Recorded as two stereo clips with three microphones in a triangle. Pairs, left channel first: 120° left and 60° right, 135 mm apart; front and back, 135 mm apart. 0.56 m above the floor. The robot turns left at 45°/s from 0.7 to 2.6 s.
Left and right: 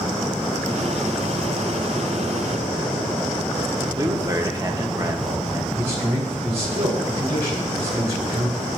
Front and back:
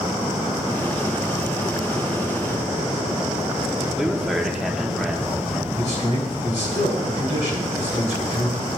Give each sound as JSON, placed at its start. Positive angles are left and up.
{"t": 4.0, "sound": "a man speaking", "azimuth_deg": -95, "distance_m": 0.8}
{"t": 5.8, "sound": "a man speaking", "azimuth_deg": -20, "distance_m": 2.5}